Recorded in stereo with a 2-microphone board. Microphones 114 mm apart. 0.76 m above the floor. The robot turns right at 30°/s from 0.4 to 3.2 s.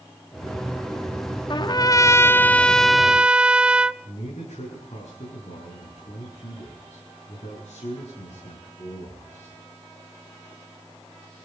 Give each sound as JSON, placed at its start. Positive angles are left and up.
{"t": 1.5, "sound": "a trumpet", "azimuth_deg": 135, "distance_m": 0.6}
{"t": 4.0, "sound": "a man speaking", "side_deg": 70, "distance_m": 8.0}